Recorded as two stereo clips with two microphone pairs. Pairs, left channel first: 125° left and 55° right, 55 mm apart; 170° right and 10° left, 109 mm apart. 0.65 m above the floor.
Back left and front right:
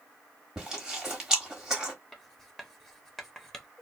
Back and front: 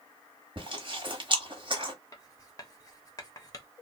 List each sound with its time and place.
0.6 s chewing: 20° left, 1.2 m
2.1 s writing: 155° right, 0.7 m